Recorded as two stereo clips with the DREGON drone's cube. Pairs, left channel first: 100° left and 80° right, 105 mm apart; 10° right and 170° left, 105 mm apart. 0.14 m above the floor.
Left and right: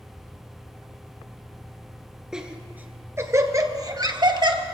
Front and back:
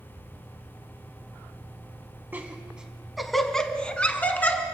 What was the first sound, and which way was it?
Laughter, 150° right.